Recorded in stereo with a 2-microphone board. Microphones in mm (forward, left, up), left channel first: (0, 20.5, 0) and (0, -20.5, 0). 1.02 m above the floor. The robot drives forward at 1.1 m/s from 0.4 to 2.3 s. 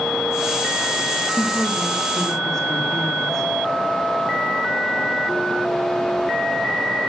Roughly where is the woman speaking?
Centre.